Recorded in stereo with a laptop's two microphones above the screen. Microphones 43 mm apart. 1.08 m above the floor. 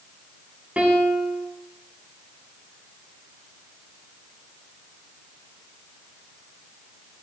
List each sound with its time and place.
0.8 s a piano: 30° right (ahead or behind), 5.5 m